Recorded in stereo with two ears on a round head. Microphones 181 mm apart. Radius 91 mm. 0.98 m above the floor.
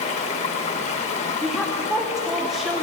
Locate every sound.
0.0 s running water: 35° left (ahead or behind), 0.8 m
1.4 s a woman speaking: centre (ahead or behind), 0.6 m